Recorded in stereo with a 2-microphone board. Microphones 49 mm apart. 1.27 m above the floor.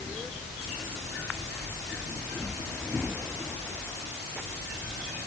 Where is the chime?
I don't hear a chime.